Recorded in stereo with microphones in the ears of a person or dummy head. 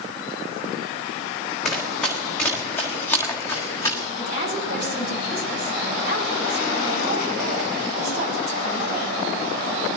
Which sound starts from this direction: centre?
Running footsteps, at 1.6 s.